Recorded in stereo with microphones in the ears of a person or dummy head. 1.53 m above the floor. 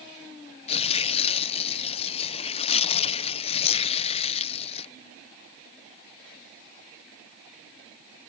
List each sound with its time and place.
0.7 s tearing paper: 45° left (ahead or behind)